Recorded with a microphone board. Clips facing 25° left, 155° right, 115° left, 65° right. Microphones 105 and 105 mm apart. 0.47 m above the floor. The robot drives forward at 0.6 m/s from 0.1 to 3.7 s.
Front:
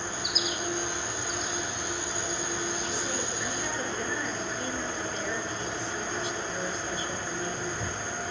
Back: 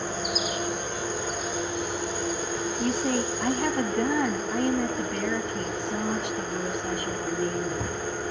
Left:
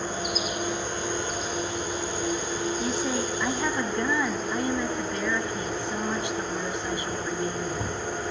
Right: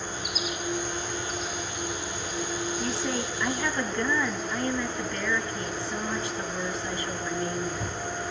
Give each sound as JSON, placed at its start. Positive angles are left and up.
{"t": 0.0, "sound": "an insect", "azimuth_deg": 150, "distance_m": 10.0}
{"t": 2.8, "sound": "a woman speaking", "azimuth_deg": -170, "distance_m": 3.0}